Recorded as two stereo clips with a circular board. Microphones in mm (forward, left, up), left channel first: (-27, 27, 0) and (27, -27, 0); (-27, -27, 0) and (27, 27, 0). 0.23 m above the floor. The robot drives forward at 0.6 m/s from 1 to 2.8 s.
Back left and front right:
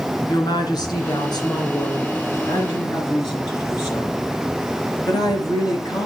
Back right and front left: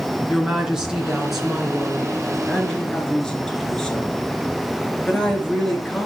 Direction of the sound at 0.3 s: 125° left.